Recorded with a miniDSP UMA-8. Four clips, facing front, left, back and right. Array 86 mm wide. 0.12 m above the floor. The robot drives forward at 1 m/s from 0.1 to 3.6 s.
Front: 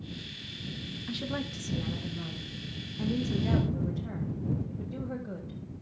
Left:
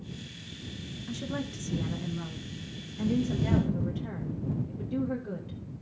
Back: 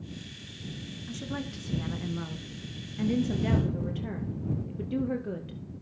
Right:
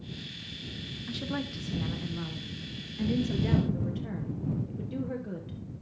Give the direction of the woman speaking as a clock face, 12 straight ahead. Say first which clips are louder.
Even, front 1 dB; 1 o'clock.